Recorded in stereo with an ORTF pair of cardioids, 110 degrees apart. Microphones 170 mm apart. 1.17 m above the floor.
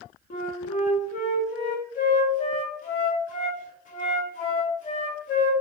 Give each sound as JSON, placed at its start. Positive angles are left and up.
{"t": 0.3, "sound": "a flute", "azimuth_deg": 50, "distance_m": 0.9}